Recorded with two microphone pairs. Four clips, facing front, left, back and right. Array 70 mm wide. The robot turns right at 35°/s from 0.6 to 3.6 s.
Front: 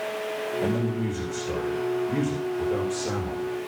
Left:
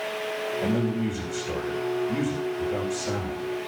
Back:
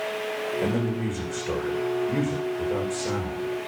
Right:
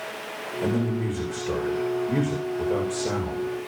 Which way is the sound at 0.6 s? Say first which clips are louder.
Right 2 dB, even; 175° left.